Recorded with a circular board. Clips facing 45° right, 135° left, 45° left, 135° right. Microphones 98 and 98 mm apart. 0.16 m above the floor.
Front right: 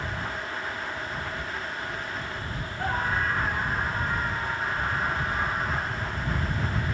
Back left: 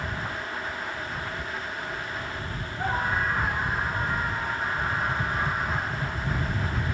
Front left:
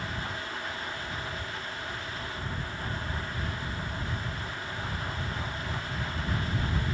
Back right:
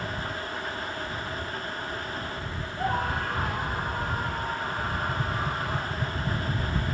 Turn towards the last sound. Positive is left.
turn(degrees=-175)